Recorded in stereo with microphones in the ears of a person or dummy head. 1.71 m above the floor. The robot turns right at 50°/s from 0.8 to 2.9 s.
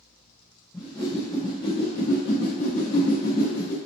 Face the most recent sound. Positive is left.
turn(degrees=20)  # may be behind; listen again after turning